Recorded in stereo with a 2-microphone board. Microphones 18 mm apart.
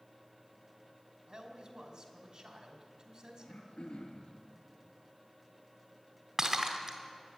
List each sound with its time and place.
1.3 s a man speaking: 45° right (ahead or behind), 2.5 m
3.4 s throat clearing: 70° left (ahead or behind), 2 m
6.4 s breaking glass: 30° right (ahead or behind), 1.9 m